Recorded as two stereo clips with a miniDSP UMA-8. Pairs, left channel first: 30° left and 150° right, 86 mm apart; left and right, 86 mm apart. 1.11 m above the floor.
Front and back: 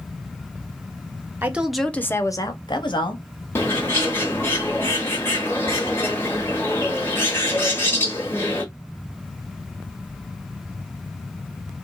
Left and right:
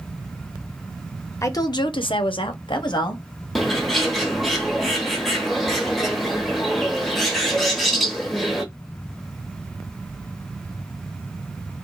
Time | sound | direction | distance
1.4 | a woman speaking | 140° left | 0.5 m
3.5 | a bird | straight ahead | 0.9 m